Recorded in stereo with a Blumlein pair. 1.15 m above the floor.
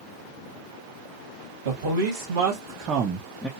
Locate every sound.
1.6 s a man speaking: 60° right, 1.1 m; by 3.5 s straight ahead, 0.5 m